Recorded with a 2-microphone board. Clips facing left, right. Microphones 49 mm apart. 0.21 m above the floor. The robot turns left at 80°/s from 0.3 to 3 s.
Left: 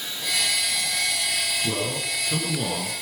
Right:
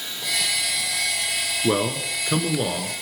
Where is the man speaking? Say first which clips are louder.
Right 5 dB; 70° right, 2.5 m; by 2.9 s 170° right, 2.5 m.